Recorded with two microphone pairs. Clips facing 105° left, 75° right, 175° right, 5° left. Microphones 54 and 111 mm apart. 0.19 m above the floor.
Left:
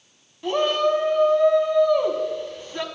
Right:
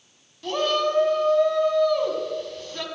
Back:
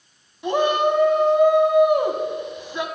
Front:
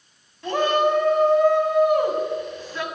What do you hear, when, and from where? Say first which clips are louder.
0.4 s a shout: left 2 dB, back 1 dB; 145° left, 1.0 m